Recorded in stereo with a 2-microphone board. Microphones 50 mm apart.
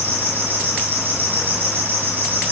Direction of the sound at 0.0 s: 40° right (ahead or behind).